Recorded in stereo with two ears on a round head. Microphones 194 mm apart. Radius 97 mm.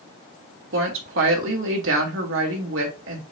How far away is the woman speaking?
About 1.7 m.